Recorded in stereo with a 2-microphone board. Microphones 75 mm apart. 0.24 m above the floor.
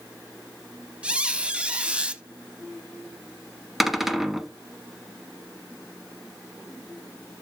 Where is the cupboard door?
5° right (ahead or behind), 1.0 m.